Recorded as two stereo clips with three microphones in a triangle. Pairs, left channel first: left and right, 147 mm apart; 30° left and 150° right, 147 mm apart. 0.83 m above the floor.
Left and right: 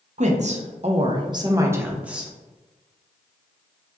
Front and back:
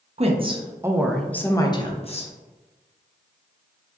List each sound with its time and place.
0.2 s a woman speaking: 115° right, 0.8 m; by 2.3 s 5° right, 0.9 m